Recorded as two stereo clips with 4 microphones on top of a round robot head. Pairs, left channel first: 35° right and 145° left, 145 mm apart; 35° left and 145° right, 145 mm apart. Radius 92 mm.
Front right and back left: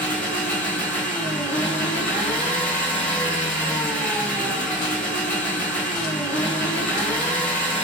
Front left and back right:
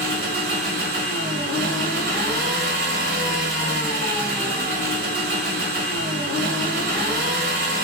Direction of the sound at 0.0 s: 120° right.